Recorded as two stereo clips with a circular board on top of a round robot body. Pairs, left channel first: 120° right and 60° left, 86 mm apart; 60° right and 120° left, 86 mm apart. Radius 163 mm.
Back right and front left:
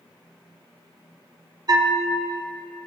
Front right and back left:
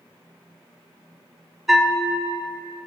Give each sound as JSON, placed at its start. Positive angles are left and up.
{"t": 1.7, "sound": "a bell", "azimuth_deg": 35, "distance_m": 1.2}